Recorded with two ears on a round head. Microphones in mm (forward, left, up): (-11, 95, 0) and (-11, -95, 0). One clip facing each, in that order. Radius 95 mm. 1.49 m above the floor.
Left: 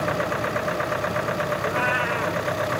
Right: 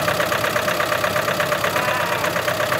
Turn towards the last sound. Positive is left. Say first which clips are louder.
# right 3 dB
turn(degrees=20)  # may be behind; listen again after turning